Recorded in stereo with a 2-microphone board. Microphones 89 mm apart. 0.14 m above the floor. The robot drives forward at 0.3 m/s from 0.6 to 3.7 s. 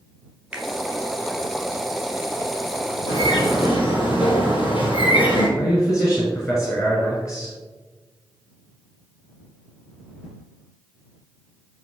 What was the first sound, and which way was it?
A finger snap, 10° right (ahead or behind).